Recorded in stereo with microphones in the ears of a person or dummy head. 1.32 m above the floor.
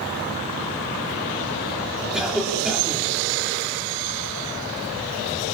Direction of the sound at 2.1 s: 5° right (ahead or behind).